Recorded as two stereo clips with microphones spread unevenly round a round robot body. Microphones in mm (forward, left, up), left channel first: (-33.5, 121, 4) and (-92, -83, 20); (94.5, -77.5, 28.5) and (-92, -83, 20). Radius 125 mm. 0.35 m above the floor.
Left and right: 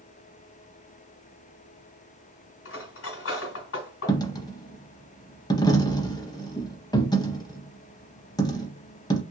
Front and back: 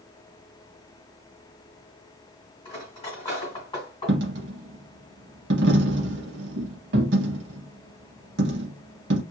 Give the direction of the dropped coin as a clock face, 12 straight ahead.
7 o'clock.